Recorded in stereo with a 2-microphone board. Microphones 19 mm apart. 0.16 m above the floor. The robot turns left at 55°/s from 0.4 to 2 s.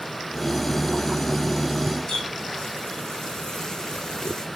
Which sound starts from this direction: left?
A running tap, at 2.1 s.